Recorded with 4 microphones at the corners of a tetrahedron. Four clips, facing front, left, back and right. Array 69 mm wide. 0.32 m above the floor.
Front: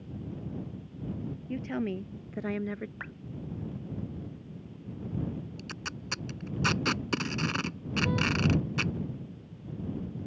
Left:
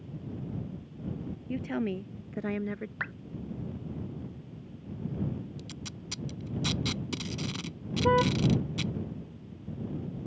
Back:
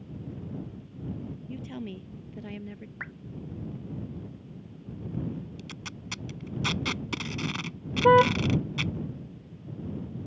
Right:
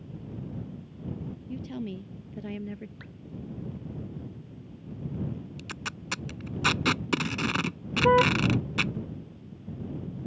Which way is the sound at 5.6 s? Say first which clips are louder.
Right 5 dB, front 2 dB; 75° right.